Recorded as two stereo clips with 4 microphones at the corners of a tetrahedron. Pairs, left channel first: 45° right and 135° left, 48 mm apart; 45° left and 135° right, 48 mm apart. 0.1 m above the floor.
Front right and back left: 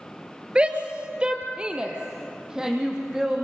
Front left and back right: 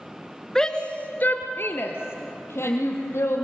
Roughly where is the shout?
Left.